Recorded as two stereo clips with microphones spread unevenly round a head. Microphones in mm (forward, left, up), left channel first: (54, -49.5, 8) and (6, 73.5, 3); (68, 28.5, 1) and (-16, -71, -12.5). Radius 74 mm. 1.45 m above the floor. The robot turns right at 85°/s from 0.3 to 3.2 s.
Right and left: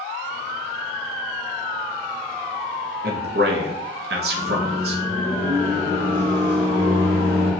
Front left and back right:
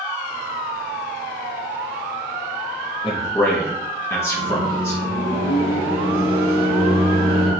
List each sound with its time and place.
3.0 s a man speaking: 110° left, 0.5 m; by 5.0 s 125° left, 0.5 m
4.4 s a microwave: 145° right, 1.6 m